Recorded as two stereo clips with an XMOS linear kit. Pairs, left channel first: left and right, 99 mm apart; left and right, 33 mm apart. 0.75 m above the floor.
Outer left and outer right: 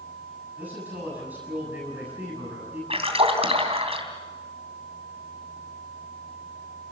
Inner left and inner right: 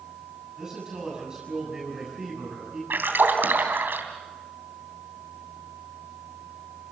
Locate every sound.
0.6 s a man speaking: 15° right (ahead or behind), 7 m
2.9 s a splash: 90° right, 3 m